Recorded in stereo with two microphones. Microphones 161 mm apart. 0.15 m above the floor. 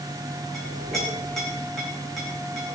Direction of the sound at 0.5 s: 5° left (ahead or behind).